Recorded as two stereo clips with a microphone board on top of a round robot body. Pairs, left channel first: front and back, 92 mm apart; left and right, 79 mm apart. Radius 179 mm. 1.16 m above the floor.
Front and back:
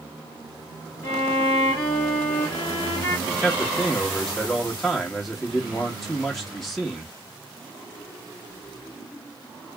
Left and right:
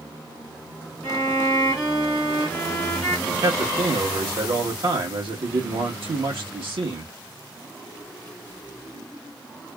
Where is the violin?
20° left, 1.2 m.